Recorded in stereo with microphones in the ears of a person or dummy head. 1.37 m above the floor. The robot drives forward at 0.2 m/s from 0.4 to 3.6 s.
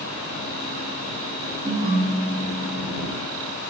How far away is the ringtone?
About 0.9 m.